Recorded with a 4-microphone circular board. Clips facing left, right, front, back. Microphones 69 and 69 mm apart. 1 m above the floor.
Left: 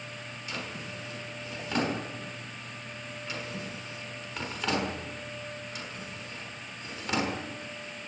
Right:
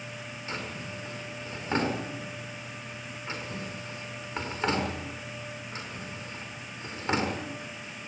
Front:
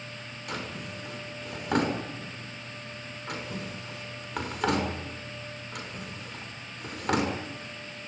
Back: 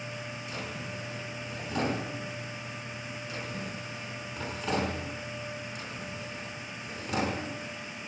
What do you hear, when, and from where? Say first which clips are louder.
0.5 s a drawer: right 1 dB, front 5 dB; 30° right, 6 m